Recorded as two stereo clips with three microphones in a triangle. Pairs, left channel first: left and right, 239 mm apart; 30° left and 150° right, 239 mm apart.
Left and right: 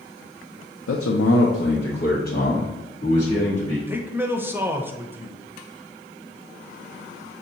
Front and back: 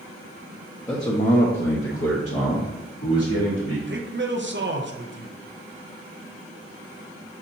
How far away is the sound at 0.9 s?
About 0.5 m.